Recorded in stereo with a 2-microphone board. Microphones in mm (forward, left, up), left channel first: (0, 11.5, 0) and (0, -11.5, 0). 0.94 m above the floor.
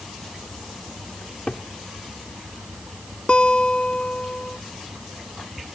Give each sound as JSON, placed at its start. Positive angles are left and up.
{"t": 1.2, "sound": "a cupboard door", "side_deg": 70}
{"t": 3.3, "sound": "a guitar", "side_deg": 55}